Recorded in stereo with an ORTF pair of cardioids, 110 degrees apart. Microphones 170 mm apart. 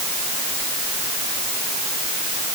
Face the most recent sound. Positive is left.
No sound to turn to.